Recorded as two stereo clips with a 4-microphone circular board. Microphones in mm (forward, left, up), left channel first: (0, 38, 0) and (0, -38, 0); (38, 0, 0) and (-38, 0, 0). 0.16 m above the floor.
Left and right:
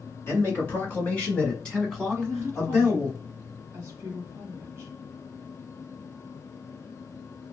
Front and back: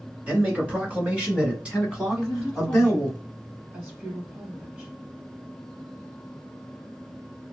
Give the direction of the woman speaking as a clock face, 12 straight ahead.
4 o'clock.